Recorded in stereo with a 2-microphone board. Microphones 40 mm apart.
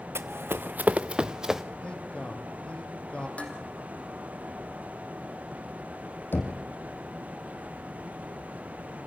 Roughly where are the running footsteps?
Right.